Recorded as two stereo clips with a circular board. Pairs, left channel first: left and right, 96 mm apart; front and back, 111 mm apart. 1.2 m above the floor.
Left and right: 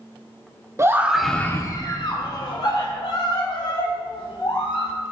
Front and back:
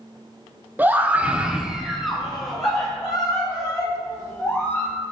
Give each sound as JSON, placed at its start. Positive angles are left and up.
{"t": 0.8, "sound": "a scream", "azimuth_deg": -120, "distance_m": 0.7}